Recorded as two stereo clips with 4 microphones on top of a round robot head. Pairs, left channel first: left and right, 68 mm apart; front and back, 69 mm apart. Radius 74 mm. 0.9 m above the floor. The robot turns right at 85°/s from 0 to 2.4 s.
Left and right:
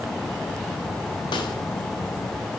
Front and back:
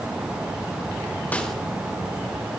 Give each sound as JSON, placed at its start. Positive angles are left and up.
{"t": 1.3, "sound": "a snare drum", "azimuth_deg": 70, "distance_m": 2.5}